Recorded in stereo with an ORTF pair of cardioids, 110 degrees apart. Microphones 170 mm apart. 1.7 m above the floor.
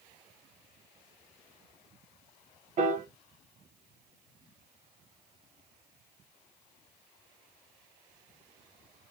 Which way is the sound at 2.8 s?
45° right.